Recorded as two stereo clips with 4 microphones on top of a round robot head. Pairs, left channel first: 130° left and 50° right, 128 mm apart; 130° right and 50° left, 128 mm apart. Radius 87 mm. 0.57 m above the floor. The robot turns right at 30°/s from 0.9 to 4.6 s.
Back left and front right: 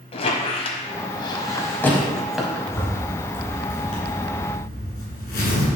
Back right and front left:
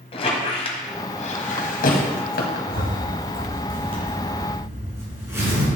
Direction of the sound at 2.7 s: 60° left.